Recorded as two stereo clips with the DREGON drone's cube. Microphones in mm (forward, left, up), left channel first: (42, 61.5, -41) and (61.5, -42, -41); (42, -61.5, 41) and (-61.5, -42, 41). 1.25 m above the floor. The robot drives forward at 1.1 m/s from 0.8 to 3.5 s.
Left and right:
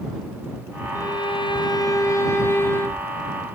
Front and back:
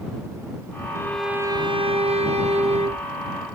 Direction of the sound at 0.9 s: 45° left.